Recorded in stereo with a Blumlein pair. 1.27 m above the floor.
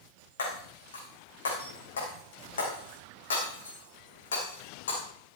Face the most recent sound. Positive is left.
turn(degrees=65)